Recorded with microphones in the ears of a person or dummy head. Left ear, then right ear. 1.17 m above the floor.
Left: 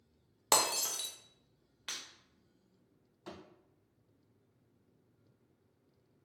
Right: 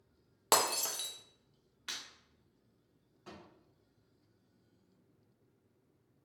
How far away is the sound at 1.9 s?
About 1.0 m.